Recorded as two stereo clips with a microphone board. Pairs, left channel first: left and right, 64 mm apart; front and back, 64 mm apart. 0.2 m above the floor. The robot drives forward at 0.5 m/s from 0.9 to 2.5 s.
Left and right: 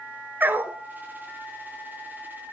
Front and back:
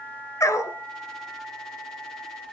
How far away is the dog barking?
About 1.2 m.